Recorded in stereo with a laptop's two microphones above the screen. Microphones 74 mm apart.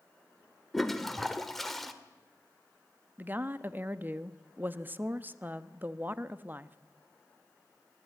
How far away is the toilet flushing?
About 1.6 m.